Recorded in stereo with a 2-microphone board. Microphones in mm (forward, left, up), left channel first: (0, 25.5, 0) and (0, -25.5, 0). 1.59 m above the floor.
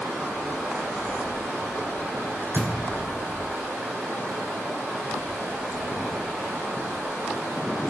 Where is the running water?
80° right, 5 m.